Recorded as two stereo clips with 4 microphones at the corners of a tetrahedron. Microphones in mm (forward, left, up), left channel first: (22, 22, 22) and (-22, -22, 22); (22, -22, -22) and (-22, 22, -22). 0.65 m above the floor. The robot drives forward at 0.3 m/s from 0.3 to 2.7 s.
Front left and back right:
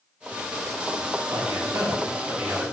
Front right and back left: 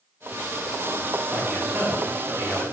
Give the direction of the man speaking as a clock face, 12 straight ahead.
5 o'clock.